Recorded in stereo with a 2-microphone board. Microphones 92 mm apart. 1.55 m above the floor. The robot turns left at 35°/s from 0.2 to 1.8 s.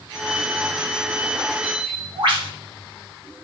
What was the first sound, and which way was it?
A bird, 65° right (ahead or behind).